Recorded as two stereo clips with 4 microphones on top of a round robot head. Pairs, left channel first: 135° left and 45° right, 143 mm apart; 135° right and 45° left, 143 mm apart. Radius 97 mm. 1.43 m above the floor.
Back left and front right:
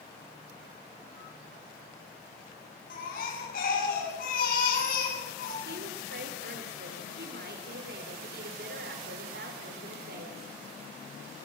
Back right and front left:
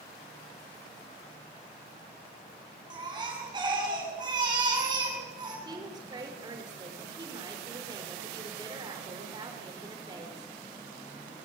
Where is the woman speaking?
20° right, 5.5 m.